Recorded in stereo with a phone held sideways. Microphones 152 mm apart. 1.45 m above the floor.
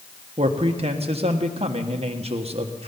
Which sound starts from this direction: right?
A man speaking, at 0.4 s.